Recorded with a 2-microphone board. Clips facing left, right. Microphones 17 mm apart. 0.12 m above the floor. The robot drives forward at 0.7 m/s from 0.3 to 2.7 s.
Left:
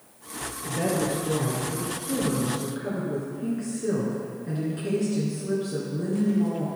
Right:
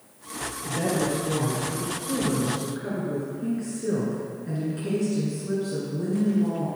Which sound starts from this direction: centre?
A woman speaking, at 0.6 s.